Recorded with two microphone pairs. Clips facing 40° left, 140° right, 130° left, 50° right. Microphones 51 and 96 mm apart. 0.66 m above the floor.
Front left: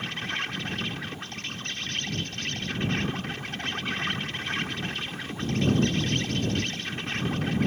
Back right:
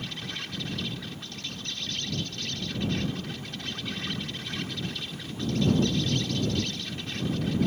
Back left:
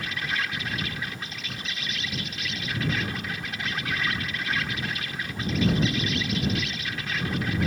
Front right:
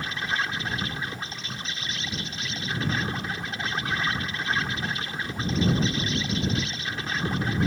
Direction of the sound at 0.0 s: 5° left.